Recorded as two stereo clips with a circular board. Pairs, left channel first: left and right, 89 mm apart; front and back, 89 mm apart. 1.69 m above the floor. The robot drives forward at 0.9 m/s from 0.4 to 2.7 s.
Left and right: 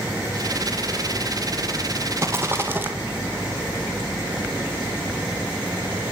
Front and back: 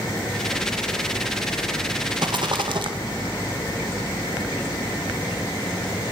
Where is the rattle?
150° right, 1.7 m; by 2.9 s 155° right, 2 m.